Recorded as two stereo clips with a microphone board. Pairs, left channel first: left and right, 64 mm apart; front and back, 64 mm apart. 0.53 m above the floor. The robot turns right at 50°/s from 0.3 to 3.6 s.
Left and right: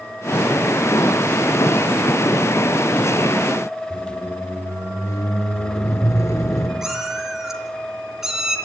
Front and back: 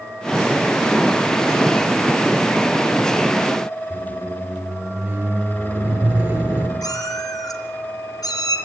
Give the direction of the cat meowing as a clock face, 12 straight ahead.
12 o'clock.